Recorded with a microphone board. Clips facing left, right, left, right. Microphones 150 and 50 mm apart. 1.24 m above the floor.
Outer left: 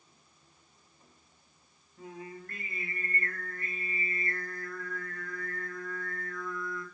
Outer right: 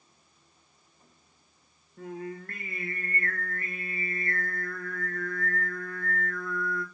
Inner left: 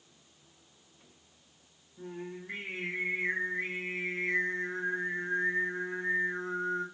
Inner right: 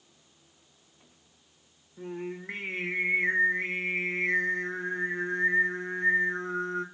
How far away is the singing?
About 1.4 m.